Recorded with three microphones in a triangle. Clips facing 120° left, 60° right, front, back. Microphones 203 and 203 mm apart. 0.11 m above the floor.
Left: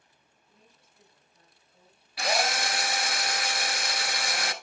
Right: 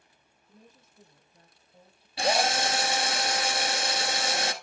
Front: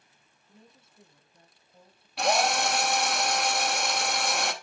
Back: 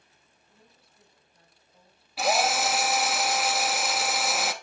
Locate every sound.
0.5 s a woman speaking: 50° right, 1.5 m
2.2 s a drill: 95° right, 0.8 m